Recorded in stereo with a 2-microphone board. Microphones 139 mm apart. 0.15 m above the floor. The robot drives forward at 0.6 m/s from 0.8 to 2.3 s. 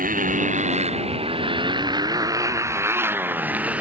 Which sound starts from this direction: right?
A motorcycle, at 0.0 s.